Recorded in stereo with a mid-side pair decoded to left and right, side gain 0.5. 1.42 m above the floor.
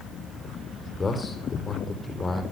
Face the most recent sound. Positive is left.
turn(degrees=30)